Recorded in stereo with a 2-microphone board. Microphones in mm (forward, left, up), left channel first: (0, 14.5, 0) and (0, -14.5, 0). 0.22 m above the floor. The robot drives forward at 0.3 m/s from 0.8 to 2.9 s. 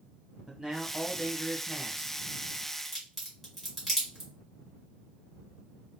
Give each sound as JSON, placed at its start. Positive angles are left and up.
{"t": 0.5, "sound": "a man speaking", "side_deg": -15, "distance_m": 1.2}
{"t": 2.9, "sound": "a crack", "side_deg": 5, "distance_m": 2.0}